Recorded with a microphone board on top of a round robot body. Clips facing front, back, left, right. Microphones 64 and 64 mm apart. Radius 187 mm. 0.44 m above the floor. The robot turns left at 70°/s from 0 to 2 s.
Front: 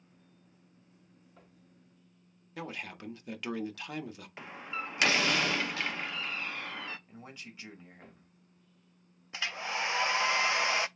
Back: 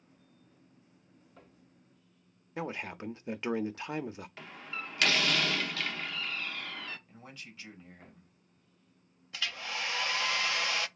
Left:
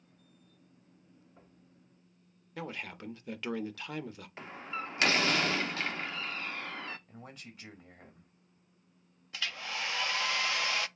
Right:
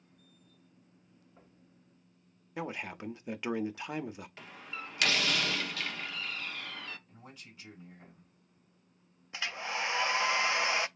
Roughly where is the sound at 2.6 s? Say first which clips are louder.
Back 4 dB, right 2 dB; behind right.